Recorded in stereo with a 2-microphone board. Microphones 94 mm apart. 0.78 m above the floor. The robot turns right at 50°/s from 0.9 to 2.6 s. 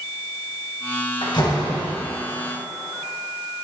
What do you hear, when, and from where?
1.2 s a door slam: 120° left, 2.5 m; by 1.9 s 150° left, 2.5 m